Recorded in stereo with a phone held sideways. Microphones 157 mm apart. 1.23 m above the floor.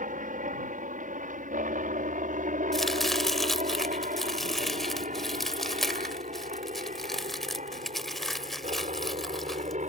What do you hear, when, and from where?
0.0 s a helicopter: 60° right (ahead or behind); by 9.9 s 50° right (ahead or behind)
2.7 s chopping: centre (ahead or behind)